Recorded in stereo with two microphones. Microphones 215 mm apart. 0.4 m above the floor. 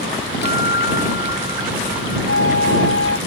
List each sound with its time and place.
0.4 s a guitar: 50° left (ahead or behind)
2.3 s a flute: 70° left (ahead or behind)